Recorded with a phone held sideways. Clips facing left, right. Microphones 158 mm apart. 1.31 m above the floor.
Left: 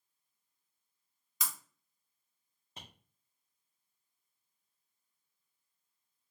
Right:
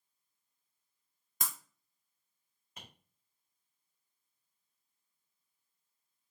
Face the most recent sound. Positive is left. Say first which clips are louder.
# left 1 dB
turn(degrees=30)  # may be behind; listen again after turning